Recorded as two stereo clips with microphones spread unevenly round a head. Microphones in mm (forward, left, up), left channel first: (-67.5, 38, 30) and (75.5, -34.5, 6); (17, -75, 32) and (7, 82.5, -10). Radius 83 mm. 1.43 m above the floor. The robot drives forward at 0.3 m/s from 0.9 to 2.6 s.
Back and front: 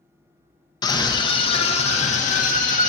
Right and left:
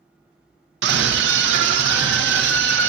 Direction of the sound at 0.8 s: 85° left.